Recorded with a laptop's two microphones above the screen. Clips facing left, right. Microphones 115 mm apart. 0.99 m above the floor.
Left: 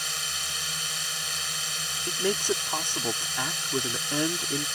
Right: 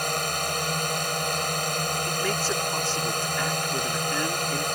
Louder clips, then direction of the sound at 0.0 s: Right 11 dB; 60° right (ahead or behind).